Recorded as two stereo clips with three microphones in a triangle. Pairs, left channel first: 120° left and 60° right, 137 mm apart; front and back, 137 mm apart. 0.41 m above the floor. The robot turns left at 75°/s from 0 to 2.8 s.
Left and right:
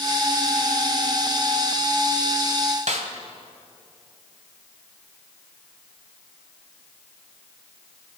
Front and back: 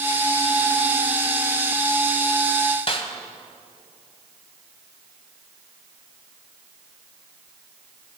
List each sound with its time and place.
2.9 s a snare drum: 40° right, 1.1 m